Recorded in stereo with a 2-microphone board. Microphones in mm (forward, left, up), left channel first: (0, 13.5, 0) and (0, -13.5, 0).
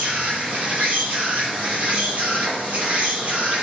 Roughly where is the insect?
Right.